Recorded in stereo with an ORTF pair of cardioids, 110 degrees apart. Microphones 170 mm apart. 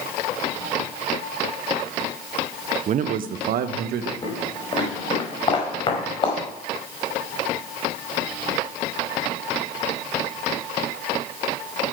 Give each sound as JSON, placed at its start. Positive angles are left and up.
{"t": 2.9, "sound": "a man speaking", "azimuth_deg": -45, "distance_m": 0.6}
{"t": 4.2, "sound": "footsteps", "azimuth_deg": 30, "distance_m": 5.0}